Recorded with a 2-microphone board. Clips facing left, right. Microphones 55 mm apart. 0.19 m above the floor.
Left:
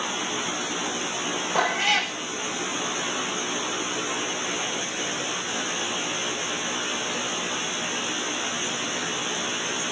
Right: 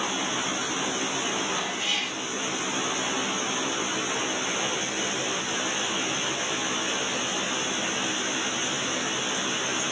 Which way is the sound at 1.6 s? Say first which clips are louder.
Left 7 dB; 85° left.